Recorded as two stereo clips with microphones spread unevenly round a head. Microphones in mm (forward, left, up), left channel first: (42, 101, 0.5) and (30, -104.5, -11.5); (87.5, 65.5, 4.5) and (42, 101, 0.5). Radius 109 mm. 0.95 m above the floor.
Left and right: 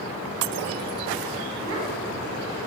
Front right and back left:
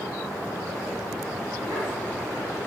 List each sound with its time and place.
1.6 s a child speaking: 75° right, 6 m